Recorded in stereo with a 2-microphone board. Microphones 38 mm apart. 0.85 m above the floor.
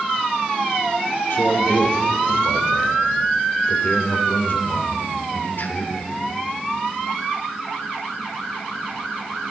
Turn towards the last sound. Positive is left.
turn(degrees=75)  # may be behind; listen again after turning